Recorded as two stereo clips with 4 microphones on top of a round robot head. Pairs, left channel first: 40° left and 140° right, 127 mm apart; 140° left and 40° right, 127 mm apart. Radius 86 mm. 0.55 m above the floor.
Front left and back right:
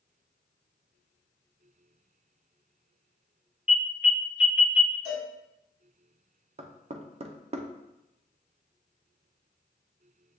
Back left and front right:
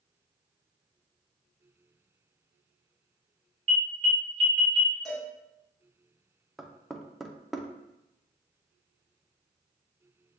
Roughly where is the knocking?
Behind right.